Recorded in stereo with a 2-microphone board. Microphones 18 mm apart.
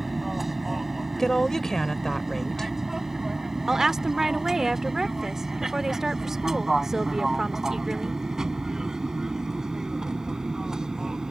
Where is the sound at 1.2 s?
30° left (ahead or behind).